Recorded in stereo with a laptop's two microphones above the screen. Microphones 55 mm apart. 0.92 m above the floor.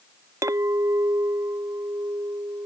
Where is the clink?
60° right (ahead or behind).